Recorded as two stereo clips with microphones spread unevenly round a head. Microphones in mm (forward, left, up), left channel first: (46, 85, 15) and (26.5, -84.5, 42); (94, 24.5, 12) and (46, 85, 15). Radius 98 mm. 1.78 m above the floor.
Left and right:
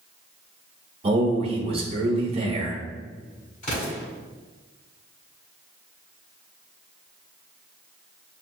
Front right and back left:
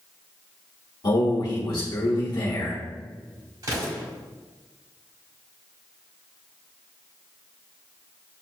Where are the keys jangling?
No keys jangling in this recording.